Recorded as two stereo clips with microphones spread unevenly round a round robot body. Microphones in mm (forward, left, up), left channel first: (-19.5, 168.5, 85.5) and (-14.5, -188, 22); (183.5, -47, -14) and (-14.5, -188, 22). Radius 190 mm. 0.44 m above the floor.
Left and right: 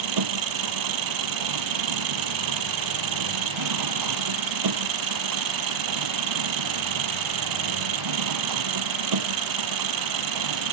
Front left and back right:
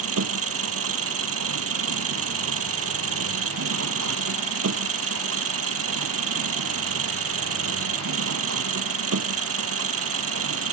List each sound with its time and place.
0.0 s an engine running: 120° right